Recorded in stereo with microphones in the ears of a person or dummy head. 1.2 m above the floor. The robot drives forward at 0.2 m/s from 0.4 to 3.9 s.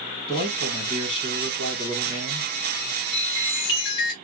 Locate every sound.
0.3 s a man speaking: 25° left (ahead or behind), 1.6 m; by 2.5 s 30° left (ahead or behind), 1.3 m
3.1 s a chime: 80° left, 1.2 m; by 4.1 s 70° left (ahead or behind), 1.2 m